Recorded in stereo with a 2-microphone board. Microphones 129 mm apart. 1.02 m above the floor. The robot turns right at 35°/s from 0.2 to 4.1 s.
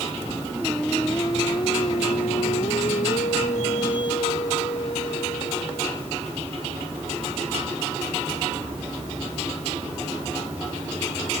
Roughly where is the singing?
Ahead.